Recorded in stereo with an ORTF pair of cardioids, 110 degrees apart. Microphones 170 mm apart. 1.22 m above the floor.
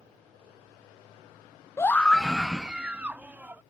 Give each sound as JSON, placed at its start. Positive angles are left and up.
{"t": 1.8, "sound": "a scream", "azimuth_deg": 15}